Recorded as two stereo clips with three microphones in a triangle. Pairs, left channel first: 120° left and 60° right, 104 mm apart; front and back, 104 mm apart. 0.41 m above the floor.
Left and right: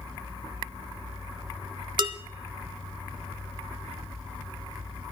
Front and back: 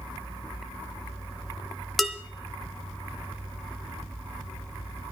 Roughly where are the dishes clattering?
Right.